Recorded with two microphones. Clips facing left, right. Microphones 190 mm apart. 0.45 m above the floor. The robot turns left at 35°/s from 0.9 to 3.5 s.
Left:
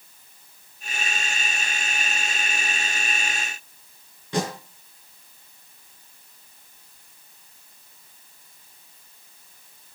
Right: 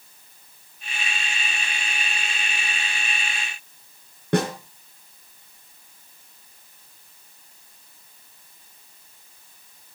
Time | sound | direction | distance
4.3 | a snare drum | 60° right (ahead or behind) | 4.5 m